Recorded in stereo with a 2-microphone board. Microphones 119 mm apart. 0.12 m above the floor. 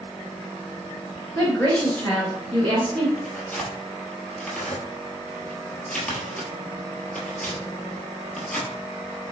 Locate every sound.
1.4 s a woman speaking: 15° left (ahead or behind), 1.8 m
3.2 s tearing paper: 5° left (ahead or behind), 1.4 m